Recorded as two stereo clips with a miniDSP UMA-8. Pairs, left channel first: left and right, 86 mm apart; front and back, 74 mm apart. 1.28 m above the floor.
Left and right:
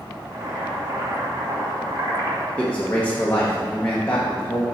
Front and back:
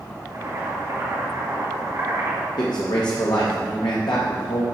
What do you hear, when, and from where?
0.3 s boiling: 135° right, 1.9 m
2.6 s a man speaking: 20° left, 0.9 m